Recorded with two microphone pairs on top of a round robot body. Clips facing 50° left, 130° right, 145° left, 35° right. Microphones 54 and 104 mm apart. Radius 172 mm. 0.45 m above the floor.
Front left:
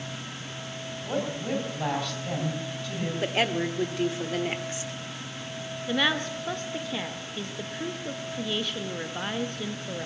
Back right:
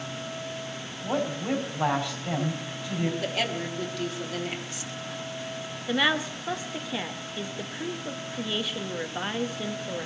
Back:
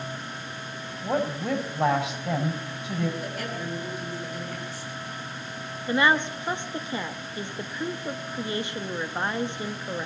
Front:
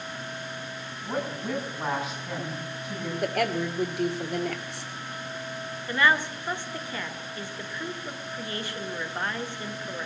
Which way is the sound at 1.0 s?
155° left.